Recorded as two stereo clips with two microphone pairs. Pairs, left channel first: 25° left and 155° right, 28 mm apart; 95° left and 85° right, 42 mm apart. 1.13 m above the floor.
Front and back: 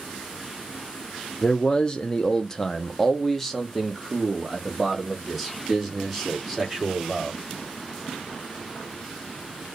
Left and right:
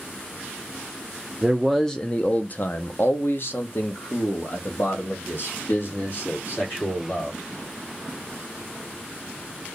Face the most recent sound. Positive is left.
turn(degrees=120)